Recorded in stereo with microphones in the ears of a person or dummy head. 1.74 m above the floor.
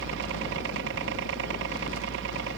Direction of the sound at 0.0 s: 65° right (ahead or behind).